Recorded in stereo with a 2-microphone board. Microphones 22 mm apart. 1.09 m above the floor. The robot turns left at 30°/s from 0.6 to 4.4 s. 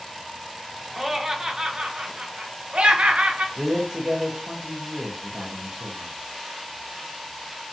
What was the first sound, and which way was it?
Laughter, 15° right.